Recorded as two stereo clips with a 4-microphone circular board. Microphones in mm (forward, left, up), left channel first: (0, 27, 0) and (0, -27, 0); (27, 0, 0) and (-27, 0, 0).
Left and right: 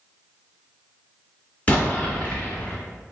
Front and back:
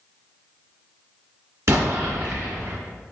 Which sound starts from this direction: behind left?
An explosion, at 1.7 s.